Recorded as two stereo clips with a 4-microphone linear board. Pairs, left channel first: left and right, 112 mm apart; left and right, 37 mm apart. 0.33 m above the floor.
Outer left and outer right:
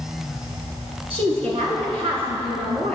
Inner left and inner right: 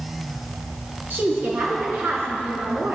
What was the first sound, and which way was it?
A woman speaking, 60° right (ahead or behind).